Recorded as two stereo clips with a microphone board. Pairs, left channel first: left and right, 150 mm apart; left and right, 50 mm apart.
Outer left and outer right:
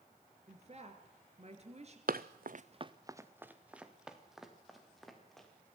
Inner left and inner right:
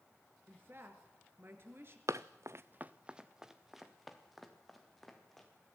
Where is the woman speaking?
45° right (ahead or behind), 3 m.